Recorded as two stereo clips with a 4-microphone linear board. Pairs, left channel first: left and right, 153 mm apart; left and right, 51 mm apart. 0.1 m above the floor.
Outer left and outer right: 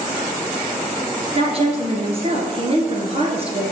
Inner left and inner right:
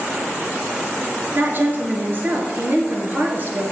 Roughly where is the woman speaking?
Right.